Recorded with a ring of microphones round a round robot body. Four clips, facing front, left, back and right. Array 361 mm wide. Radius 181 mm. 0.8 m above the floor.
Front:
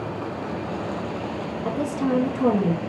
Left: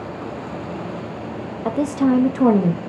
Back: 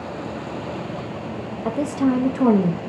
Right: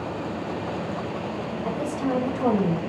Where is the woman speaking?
115° left, 0.7 m.